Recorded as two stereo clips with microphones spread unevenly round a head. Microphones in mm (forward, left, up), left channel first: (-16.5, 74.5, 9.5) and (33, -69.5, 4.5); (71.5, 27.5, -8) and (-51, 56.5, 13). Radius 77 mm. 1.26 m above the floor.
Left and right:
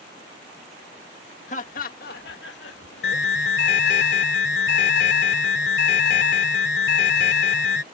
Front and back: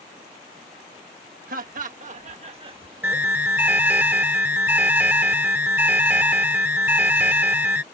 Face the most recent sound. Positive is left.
turn(degrees=95)